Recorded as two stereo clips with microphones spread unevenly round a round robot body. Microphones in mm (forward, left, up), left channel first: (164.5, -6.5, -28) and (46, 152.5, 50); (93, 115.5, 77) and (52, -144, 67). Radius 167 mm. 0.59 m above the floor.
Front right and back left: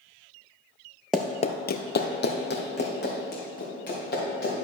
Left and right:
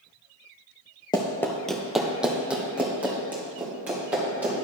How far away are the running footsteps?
About 0.6 m.